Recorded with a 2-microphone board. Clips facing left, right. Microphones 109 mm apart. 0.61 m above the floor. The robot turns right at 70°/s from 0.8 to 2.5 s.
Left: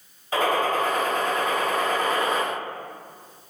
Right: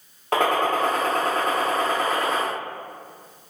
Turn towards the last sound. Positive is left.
turn(degrees=30)